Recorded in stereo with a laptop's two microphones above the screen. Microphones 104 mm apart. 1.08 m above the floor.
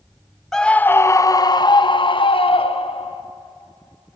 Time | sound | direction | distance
0.5 | a scream | 5° left (ahead or behind) | 0.6 m